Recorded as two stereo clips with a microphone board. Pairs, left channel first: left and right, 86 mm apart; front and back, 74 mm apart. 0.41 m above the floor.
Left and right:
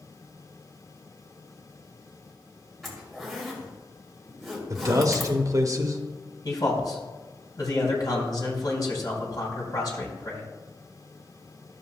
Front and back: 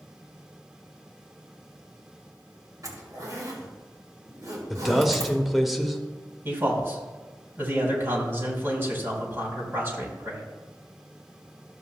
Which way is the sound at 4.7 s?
90° right.